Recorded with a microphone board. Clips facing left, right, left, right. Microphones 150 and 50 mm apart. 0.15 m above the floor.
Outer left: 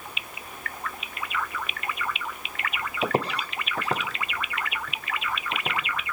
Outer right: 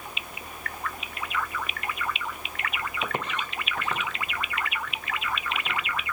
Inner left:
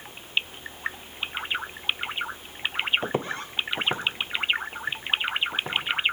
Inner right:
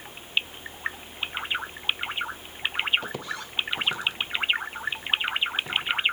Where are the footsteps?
35° left (ahead or behind), 0.9 m; by 5.8 s 40° left (ahead or behind), 4.5 m.